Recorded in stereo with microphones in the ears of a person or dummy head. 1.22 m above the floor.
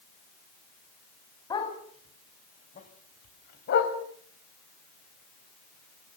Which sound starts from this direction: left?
A dog barking, at 1.5 s.